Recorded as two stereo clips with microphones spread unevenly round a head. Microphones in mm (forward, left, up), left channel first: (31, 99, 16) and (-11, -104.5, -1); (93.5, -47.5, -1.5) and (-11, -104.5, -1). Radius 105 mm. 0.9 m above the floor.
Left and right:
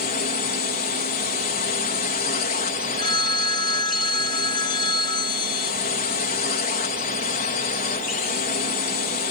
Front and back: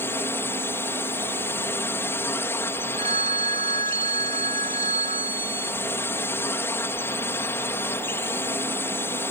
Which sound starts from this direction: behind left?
A phone ringing, at 3.0 s.